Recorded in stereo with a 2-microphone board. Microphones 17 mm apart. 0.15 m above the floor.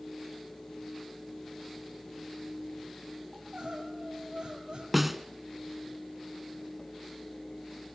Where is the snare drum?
5° right (ahead or behind), 1.6 m.